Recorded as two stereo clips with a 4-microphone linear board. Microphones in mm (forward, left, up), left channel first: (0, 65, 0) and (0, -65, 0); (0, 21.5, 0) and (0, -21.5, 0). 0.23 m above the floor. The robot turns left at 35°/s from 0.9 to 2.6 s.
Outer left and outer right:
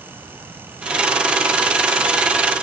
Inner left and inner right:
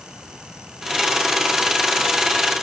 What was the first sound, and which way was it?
Only background noise.